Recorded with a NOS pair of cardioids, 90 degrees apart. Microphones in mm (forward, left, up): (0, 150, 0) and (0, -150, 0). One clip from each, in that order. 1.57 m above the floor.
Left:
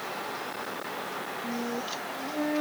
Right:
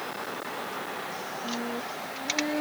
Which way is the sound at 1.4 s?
15° left.